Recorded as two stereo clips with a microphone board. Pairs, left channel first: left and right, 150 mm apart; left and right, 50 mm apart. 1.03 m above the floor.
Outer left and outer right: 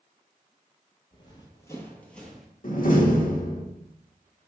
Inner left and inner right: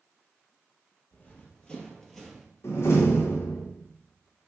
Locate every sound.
1.1 s running footsteps: 35° left (ahead or behind), 1.7 m; by 2.5 s 5° right (ahead or behind), 1.5 m
2.6 s a door slam: 65° left (ahead or behind), 1.2 m